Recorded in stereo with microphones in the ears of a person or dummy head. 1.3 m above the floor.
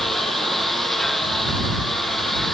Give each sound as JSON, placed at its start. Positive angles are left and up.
{"t": 0.0, "sound": "a lawn mower", "side_deg": 0}